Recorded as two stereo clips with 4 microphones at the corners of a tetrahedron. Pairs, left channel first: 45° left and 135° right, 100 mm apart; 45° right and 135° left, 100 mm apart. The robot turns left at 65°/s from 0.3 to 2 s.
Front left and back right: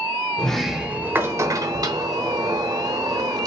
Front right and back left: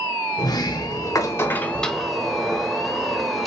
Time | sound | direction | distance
0.4 | a sliding door | 30° right | 0.8 m